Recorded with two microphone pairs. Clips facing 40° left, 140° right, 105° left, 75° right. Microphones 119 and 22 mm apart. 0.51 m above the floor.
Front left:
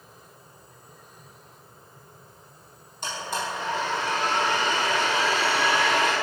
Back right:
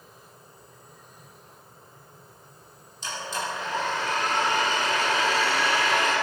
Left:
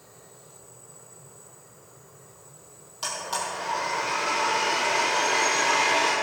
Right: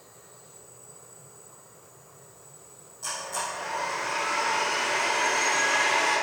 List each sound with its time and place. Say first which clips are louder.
3.0 s a blender: front left 1 dB, left 2 dB; 70° left, 7 m